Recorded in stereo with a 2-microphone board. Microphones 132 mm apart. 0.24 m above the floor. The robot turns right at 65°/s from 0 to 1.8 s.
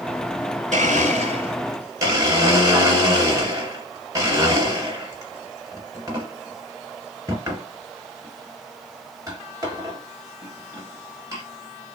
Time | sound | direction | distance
0.7 | a blender | 70° right (ahead or behind) | 1.6 m